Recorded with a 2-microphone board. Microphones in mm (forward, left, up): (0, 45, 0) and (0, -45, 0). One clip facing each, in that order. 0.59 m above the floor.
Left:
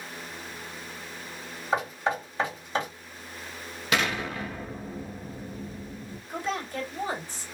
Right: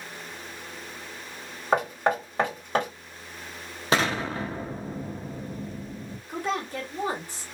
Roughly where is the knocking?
Right.